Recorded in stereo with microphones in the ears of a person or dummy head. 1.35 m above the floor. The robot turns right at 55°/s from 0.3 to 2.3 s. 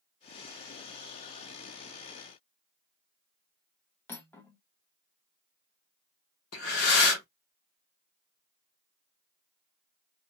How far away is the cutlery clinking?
About 0.5 m.